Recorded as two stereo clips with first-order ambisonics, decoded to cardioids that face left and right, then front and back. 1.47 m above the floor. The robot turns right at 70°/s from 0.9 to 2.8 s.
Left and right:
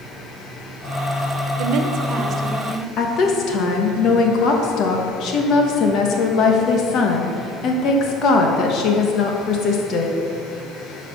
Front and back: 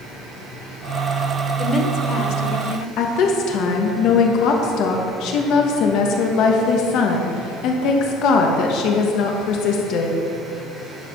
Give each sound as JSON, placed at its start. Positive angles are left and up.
{"t": 1.6, "sound": "a woman speaking", "azimuth_deg": -80, "distance_m": 1.0}
{"t": 3.0, "sound": "a woman speaking", "azimuth_deg": 40, "distance_m": 1.3}